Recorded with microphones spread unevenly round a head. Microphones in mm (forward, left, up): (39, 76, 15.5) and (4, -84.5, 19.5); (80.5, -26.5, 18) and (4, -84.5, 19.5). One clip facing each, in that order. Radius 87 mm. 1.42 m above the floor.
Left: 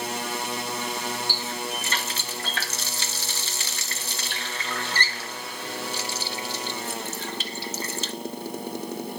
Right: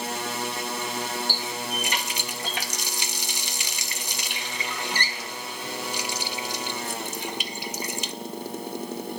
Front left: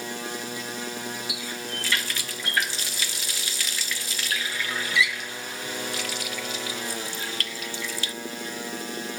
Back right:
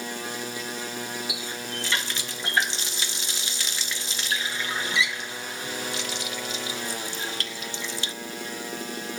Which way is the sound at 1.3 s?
150° right.